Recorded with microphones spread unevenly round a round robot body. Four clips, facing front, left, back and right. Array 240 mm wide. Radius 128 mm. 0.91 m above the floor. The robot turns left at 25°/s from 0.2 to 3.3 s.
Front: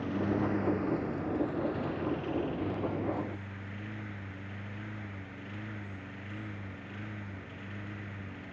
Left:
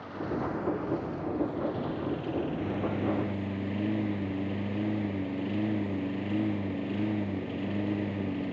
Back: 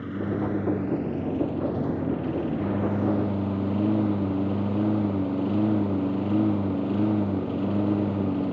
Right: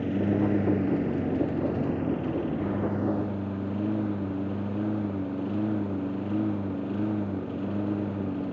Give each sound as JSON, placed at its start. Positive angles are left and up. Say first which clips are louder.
{"t": 0.0, "sound": "a lawn mower", "louder": "right 8 dB, back 3 dB", "azimuth_deg": -95}